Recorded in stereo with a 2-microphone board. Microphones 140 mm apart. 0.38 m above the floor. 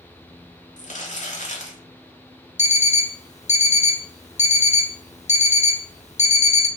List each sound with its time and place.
0.8 s crumpling: 55° left (ahead or behind), 0.9 m
2.6 s an alarm clock: 50° left (ahead or behind), 0.5 m